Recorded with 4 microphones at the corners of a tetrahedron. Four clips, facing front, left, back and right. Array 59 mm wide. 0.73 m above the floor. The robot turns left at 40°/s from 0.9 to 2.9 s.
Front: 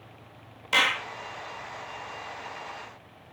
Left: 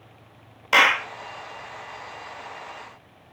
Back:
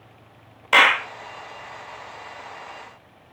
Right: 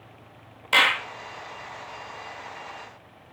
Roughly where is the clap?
Behind left.